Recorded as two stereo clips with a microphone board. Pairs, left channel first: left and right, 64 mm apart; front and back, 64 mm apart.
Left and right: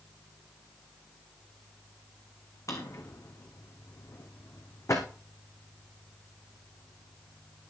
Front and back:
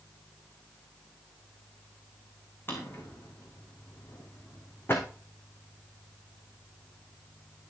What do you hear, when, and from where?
2.7 s a drawer: 55° left, 3 m